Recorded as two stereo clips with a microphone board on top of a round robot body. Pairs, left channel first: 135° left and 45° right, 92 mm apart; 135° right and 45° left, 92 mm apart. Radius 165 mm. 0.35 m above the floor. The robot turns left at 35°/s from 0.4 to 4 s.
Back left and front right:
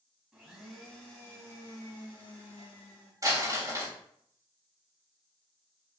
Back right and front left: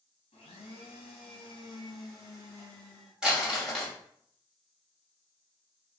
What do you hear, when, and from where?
0.3 s a blender: 130° right, 0.7 m; by 3.1 s 135° left, 0.7 m
3.2 s crumpling: 35° right, 1.5 m; by 3.9 s 60° right, 1.5 m